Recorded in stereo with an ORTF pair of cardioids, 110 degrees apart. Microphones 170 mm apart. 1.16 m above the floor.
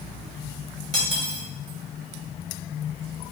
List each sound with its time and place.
0.9 s cutlery clinking: 20° left, 1.6 m